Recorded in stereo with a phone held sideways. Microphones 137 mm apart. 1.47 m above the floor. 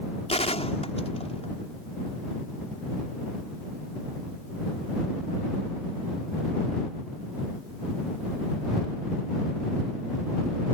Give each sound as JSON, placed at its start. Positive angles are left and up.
{"t": 0.3, "sound": "a gunshot", "side_deg": 50}